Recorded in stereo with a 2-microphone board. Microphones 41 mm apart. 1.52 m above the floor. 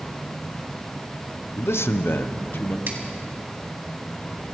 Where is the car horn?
I don't hear a car horn.